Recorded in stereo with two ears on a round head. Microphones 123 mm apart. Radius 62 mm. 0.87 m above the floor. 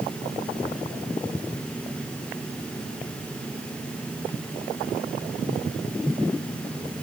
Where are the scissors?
I don't hear scissors.